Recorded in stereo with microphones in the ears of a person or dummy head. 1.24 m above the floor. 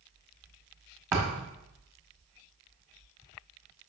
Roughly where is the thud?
Centre.